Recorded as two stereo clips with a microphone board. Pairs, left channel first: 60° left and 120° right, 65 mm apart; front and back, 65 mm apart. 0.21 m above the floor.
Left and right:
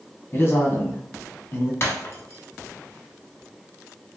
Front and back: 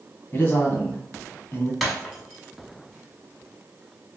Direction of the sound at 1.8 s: 90° left.